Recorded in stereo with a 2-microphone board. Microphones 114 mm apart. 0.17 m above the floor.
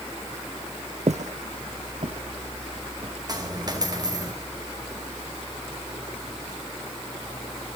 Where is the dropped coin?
30° right (ahead or behind), 2.5 m.